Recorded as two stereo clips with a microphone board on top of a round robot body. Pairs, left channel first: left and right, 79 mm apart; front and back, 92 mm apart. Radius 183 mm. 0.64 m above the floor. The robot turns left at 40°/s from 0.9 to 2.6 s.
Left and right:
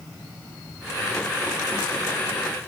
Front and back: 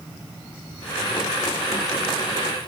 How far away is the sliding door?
I don't hear a sliding door.